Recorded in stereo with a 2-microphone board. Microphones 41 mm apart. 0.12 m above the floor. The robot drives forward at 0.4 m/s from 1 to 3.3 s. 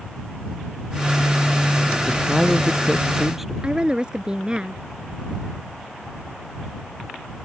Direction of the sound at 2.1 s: 5° right (ahead or behind).